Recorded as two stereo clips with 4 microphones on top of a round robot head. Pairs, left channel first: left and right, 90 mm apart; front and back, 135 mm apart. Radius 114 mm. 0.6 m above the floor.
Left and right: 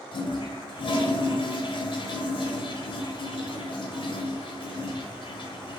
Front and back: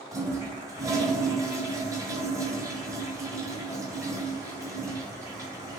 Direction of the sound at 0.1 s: 110° left.